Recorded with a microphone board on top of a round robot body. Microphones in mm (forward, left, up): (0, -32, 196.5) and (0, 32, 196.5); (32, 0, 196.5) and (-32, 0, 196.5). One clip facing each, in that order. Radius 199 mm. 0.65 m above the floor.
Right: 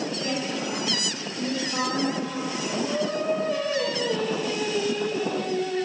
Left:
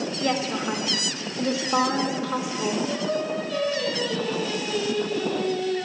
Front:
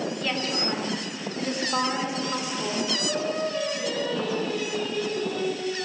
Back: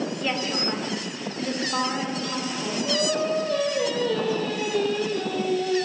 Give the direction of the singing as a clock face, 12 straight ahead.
5 o'clock.